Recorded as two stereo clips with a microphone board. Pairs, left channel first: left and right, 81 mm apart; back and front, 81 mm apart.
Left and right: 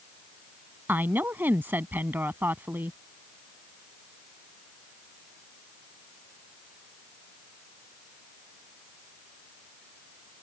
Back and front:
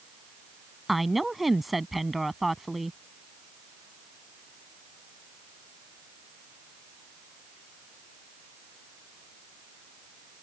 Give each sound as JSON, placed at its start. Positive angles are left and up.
{"t": 0.9, "sound": "a woman speaking", "azimuth_deg": -85}